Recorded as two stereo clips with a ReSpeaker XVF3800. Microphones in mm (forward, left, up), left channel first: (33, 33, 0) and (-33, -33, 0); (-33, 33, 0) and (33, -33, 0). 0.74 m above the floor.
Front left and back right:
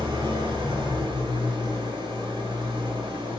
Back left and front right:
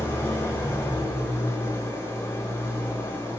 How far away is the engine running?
About 1.6 m.